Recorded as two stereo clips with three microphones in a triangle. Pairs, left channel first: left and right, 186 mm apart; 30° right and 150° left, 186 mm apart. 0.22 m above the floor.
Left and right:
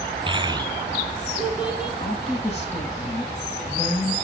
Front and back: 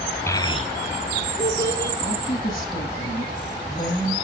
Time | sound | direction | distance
0.3 | a child speaking | 90° right | 0.7 m
2.0 | a woman speaking | 35° left | 7 m